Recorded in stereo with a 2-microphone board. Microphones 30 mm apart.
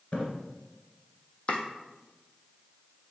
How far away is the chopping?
About 0.9 m.